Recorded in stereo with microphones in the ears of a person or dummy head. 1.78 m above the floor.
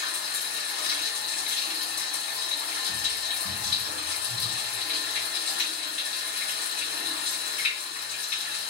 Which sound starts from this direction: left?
Running water, at 0.0 s.